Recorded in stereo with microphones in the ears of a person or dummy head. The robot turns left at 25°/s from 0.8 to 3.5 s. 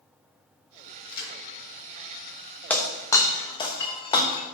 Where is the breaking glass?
5° left (ahead or behind), 0.8 m; by 4.4 s 20° left (ahead or behind), 0.8 m.